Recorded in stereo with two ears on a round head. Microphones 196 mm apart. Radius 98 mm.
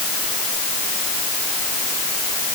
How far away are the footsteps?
No footsteps in this recording.